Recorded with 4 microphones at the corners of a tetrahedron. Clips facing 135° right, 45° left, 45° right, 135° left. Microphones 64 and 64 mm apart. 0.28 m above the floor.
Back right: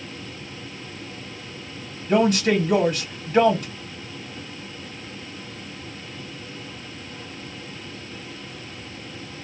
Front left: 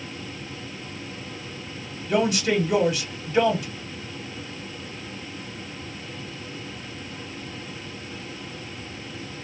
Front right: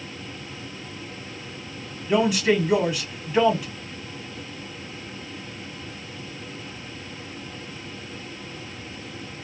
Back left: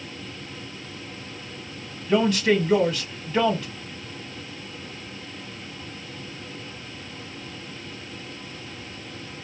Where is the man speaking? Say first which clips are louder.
Back right 3 dB, even; 115° right, 1.8 m.